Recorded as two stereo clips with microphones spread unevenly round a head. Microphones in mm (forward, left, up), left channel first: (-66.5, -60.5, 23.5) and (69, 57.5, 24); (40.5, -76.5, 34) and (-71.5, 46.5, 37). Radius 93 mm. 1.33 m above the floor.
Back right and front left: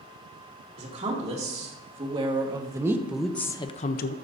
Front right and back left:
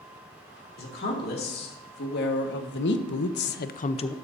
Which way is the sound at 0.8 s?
10° right.